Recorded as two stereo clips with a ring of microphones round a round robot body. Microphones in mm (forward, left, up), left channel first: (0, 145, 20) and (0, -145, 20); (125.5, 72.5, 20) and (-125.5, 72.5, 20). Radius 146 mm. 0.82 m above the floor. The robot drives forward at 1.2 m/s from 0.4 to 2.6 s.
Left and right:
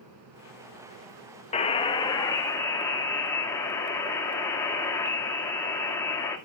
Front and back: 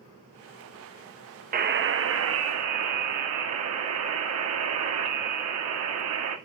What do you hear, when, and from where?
1.5 s a buzzer: 145° left, 1.0 m; by 6.4 s 170° left, 2.0 m